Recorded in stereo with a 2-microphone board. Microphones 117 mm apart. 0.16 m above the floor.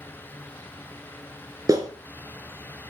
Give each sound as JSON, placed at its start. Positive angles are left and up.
{"t": 1.7, "sound": "a clap", "side_deg": -30, "distance_m": 2.0}